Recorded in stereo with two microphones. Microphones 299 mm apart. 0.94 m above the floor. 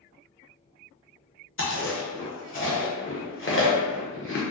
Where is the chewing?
40° left (ahead or behind), 0.6 m.